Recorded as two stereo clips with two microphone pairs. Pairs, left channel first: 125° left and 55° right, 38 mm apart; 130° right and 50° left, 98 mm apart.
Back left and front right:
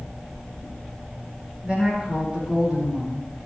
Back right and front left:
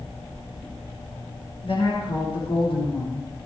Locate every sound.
1.6 s a woman speaking: 115° right, 5 m